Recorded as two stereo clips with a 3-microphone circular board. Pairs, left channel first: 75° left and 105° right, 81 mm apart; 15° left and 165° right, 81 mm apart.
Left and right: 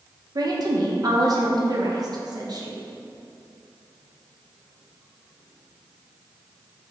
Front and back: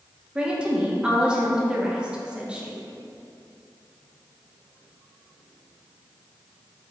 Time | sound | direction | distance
0.3 | a woman speaking | 90° right | 0.6 m